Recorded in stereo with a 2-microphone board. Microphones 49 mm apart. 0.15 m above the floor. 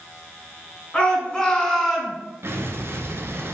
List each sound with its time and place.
0.9 s a shout: 25° left (ahead or behind), 1.5 m; by 2.2 s 5° right (ahead or behind), 1.2 m
2.4 s an explosion: 60° right (ahead or behind), 0.6 m